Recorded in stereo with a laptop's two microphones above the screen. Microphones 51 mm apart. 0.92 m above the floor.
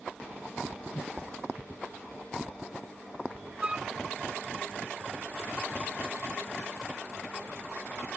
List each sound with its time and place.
0.9 s a whoosh: 65° left (ahead or behind)
3.6 s a flute: 20° right (ahead or behind)